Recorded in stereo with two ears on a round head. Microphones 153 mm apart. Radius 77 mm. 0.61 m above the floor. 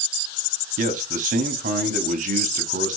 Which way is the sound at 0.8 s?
45° right (ahead or behind).